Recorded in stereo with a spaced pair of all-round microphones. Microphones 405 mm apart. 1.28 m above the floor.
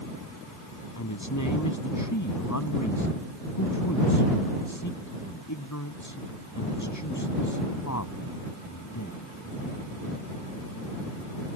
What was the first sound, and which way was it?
A man speaking, 45° left (ahead or behind).